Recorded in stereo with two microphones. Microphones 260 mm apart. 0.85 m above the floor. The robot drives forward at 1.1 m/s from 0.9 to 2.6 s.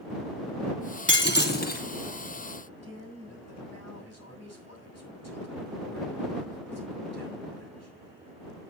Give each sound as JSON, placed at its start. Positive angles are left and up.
{"t": 1.1, "sound": "breaking glass", "side_deg": 50, "distance_m": 1.8}
{"t": 2.6, "sound": "a man speaking", "side_deg": 80, "distance_m": 6.0}